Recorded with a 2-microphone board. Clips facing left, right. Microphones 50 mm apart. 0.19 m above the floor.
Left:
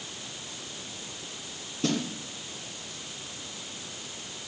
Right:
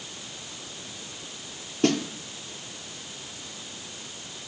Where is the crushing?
I don't hear crushing.